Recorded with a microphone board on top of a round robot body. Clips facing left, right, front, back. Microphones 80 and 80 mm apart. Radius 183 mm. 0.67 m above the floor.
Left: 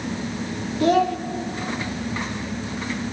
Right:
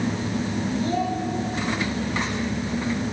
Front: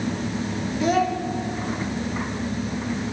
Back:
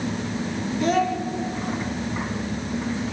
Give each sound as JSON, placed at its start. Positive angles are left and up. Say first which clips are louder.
{"t": 0.8, "sound": "a child speaking", "louder": "left 10 dB, even", "azimuth_deg": 85, "distance_m": 1.1}